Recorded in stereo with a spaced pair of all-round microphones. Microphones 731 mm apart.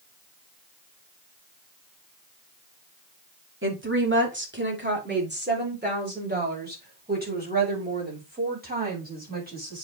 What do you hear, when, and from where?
3.6 s a woman speaking: 15° right (ahead or behind), 2.0 m; by 9.8 s 10° right (ahead or behind), 6 m